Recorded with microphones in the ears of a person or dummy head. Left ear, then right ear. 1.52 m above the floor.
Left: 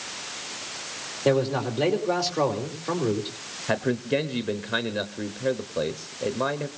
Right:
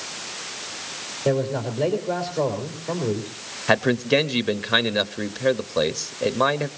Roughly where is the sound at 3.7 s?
Right.